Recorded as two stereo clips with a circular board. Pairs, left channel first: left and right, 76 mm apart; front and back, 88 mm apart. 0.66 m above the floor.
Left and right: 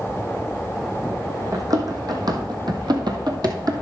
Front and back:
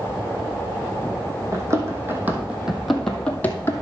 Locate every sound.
1.5 s running footsteps: 130° right, 2.0 m; by 3.7 s 60° right, 1.4 m